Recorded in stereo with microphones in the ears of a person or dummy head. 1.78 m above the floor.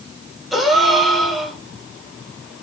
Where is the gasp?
Centre (ahead or behind), 1.0 m.